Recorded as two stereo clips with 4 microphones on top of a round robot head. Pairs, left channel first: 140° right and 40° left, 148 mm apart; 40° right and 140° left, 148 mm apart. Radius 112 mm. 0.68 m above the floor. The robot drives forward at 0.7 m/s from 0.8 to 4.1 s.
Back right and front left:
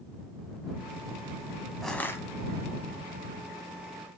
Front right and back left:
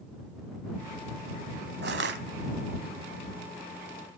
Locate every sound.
1.8 s crushing: 130° left, 0.6 m; by 2.2 s 150° left, 0.8 m